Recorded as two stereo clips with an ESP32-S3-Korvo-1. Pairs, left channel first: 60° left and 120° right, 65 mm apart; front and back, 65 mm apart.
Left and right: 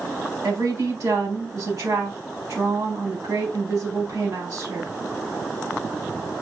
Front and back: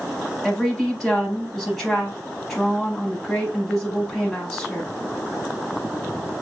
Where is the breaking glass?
No breaking glass in this recording.